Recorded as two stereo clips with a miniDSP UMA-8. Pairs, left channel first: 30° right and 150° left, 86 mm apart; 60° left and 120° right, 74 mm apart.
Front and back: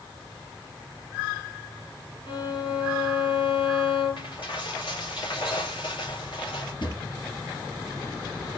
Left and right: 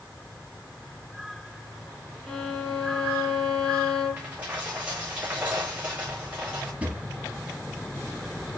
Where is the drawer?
50° right, 2.5 m.